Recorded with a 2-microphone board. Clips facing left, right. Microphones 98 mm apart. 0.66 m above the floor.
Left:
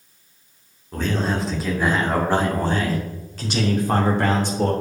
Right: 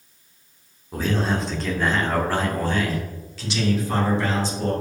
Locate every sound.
0.9 s a man speaking: 5° right (ahead or behind), 2 m; by 4.7 s 60° left (ahead or behind), 2.5 m